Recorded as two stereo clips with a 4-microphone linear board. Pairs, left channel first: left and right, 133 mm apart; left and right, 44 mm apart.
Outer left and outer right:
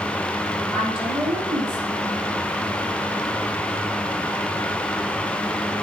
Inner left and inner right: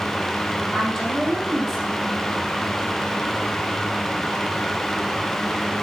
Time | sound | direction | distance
0.7 | a woman speaking | centre (ahead or behind) | 4.5 m